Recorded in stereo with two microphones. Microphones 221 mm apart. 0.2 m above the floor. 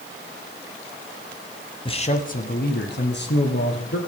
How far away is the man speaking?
About 1.0 m.